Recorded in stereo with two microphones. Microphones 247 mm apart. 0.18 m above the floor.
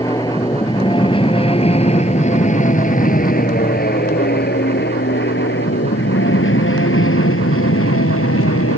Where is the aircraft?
15° left (ahead or behind); by 8.8 s 65° left (ahead or behind).